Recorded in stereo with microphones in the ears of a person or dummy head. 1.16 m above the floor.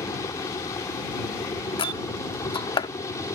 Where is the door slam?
30° left (ahead or behind).